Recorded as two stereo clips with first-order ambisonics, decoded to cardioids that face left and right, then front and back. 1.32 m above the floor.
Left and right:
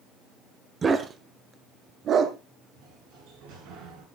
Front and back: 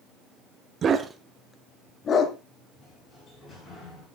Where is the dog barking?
145° right, 1.2 m; by 2.4 s 40° right, 1.5 m.